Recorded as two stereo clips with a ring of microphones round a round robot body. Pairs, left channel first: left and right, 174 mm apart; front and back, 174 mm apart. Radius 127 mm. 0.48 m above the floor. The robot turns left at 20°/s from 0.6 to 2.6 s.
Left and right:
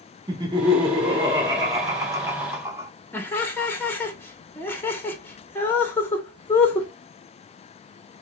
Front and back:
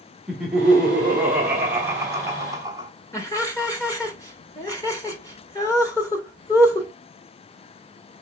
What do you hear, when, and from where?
0.3 s laughter: 100° right, 0.8 m; by 2.9 s 140° right, 0.8 m
3.1 s laughter: 35° left, 1.2 m